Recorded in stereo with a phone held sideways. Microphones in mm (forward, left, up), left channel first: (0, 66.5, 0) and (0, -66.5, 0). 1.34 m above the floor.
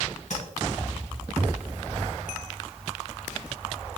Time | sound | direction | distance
0.3 | tapping | 70° left (ahead or behind) | 3.5 m